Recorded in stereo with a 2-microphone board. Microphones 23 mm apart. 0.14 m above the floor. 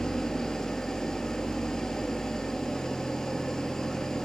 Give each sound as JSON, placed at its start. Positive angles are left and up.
{"t": 0.0, "sound": "an engine running", "side_deg": 25, "distance_m": 0.7}